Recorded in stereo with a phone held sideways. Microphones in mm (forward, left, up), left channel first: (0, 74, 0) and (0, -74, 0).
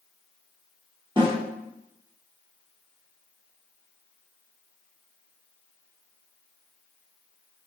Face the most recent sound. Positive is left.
turn(degrees=-30)  # may be behind; listen again after turning